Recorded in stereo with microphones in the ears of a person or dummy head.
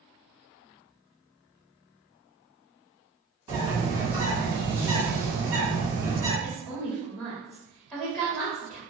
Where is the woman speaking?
Centre (ahead or behind), 1.8 m.